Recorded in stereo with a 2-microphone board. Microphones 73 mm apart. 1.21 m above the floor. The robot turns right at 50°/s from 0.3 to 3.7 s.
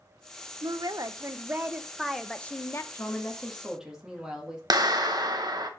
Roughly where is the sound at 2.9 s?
Behind left.